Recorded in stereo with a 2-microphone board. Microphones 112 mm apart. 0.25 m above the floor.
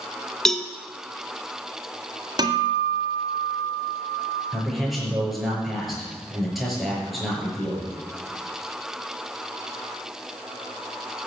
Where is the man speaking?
Centre (ahead or behind), 6 m.